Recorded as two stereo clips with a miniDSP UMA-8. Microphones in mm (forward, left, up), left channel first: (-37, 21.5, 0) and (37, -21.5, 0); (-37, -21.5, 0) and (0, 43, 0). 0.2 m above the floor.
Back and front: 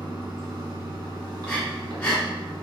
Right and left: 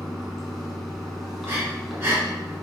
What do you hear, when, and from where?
0.0 s running water: 30° right, 1.1 m
1.4 s breathing: 85° left, 1.7 m